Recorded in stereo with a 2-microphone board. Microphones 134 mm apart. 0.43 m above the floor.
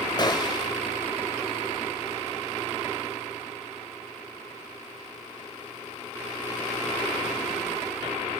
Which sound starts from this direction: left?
A gunshot, at 0.2 s.